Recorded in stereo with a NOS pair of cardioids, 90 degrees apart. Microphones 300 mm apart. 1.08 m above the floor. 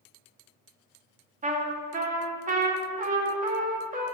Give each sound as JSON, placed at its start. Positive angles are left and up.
{"t": 1.4, "sound": "a trumpet", "azimuth_deg": -30, "distance_m": 1.6}